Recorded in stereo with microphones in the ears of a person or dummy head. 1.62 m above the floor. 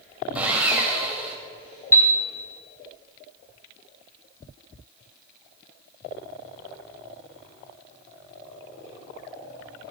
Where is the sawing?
5° right (ahead or behind), 2.5 m.